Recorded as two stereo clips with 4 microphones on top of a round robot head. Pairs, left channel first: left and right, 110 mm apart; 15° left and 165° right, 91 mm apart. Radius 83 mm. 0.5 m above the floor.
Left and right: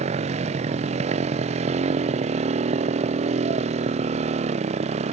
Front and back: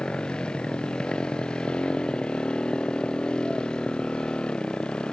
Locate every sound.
0.0 s a motorcycle: 70° right